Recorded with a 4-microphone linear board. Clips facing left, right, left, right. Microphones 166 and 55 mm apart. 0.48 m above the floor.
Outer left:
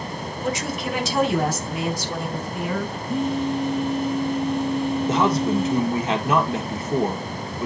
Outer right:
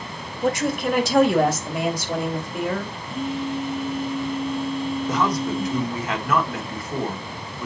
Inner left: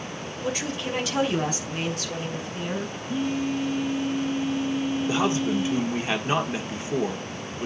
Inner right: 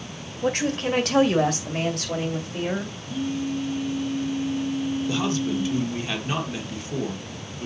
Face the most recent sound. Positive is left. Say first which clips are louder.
# outer left 3 dB, inner left 3 dB
turn(degrees=25)  # may be behind; listen again after turning